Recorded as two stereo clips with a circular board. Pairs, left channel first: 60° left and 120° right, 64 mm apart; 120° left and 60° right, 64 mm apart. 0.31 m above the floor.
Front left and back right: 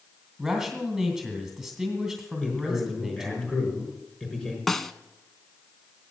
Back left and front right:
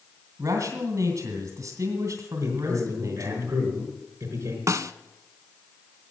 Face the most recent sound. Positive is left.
turn(degrees=-25)